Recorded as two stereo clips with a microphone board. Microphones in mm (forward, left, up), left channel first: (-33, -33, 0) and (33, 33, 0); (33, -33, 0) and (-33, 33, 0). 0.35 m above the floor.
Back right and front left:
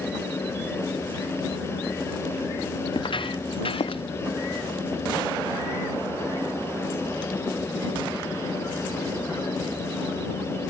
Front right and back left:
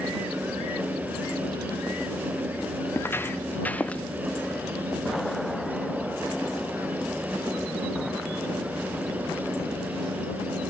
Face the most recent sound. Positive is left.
turn(degrees=-120)